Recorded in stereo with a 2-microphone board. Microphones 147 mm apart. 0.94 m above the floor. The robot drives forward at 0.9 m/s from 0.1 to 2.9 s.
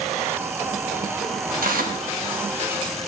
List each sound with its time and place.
1.6 s tearing paper: 75° right (ahead or behind), 1.0 m; by 2.0 s 70° right (ahead or behind), 1.0 m